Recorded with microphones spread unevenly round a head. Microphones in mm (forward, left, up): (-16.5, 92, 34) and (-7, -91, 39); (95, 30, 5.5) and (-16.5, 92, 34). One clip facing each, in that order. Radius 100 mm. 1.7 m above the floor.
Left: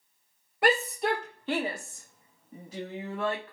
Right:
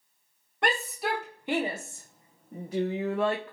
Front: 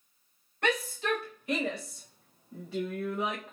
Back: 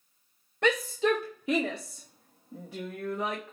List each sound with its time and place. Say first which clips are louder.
0.6 s a shout: left 4 dB, back 5 dB; straight behind, 2.5 m; by 3.5 s 105° right, 2 m